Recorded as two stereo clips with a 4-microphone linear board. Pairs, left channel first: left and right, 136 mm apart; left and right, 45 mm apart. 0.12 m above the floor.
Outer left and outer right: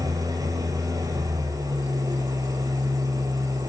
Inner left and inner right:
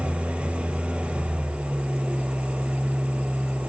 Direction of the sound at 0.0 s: 25° right (ahead or behind).